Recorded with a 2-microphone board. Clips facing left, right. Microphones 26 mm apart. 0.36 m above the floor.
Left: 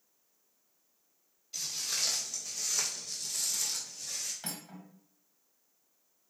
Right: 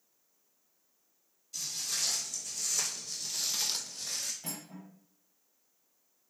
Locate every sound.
1.5 s footsteps: 35° left (ahead or behind), 1.8 m; by 4.3 s 65° right (ahead or behind), 0.8 m
4.4 s cutlery clinking: 55° left (ahead or behind), 1.0 m